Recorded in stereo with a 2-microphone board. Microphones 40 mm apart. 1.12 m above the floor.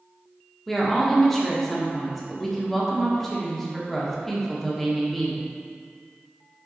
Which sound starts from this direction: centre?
A woman speaking, at 0.7 s.